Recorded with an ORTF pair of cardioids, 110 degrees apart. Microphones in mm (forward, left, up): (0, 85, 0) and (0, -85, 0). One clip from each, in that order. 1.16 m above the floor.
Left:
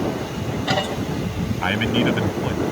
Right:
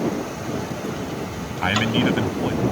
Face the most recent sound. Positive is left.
turn(degrees=0)